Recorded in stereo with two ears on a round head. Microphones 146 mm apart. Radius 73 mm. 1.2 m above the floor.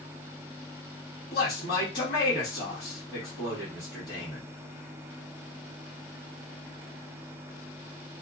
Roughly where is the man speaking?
Left.